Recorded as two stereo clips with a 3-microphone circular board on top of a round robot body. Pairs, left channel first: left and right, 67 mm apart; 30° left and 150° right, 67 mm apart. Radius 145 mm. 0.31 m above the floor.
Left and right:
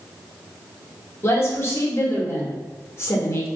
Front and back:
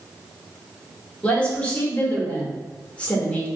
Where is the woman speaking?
90° left, 1.1 m.